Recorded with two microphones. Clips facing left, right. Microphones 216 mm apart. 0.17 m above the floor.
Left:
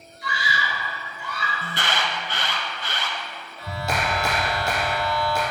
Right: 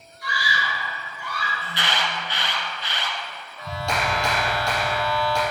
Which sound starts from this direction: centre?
A clap, at 3.6 s.